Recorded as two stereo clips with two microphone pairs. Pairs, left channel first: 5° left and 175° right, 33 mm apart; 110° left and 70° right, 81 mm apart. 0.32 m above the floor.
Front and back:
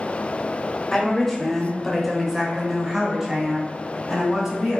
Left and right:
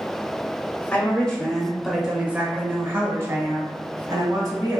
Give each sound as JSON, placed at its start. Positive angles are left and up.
{"t": 0.9, "sound": "a woman speaking", "azimuth_deg": 60, "distance_m": 1.0}